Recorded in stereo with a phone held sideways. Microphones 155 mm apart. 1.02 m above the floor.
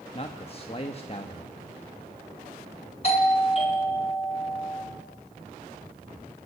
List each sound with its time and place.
0.1 s a man speaking: 40° left (ahead or behind), 1.3 m
3.0 s a doorbell: 40° left (ahead or behind), 4 m